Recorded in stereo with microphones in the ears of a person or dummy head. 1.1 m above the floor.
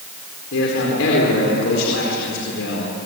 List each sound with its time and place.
0.5 s a man speaking: 70° left (ahead or behind), 4.5 m